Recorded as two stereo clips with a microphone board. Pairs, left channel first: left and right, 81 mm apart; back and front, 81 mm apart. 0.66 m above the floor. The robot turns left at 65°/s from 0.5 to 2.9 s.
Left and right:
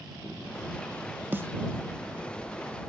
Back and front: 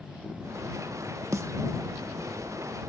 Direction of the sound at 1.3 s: 30° right.